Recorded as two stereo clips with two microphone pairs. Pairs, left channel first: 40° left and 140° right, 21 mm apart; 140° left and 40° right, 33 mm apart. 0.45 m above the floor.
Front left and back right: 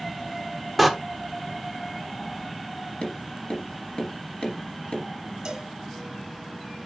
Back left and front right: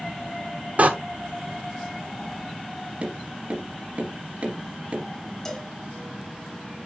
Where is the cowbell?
150° right, 1.4 m.